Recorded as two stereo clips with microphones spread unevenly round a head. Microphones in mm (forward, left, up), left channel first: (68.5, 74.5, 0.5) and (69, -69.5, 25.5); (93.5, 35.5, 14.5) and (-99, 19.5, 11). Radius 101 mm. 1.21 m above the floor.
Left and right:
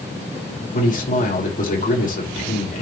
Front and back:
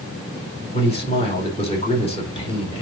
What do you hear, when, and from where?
0.7 s a man speaking: 65° left, 5 m